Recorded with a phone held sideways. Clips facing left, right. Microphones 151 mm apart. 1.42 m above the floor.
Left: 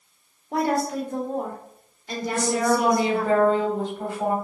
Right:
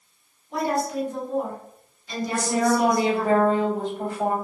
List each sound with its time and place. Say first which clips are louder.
0.5 s a woman speaking: left 1 dB; 60° left (ahead or behind), 0.9 m
2.3 s a woman speaking: even; 45° right (ahead or behind), 1.7 m